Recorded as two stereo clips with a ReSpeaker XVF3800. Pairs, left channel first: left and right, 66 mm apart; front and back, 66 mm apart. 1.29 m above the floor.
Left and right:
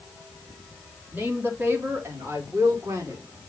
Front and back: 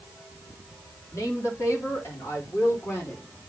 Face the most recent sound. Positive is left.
turn(degrees=-55)